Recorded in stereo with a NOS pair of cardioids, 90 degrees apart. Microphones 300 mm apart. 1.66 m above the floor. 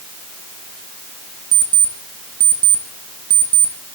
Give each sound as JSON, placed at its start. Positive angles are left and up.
{"t": 1.5, "sound": "an alarm clock", "azimuth_deg": -60, "distance_m": 2.5}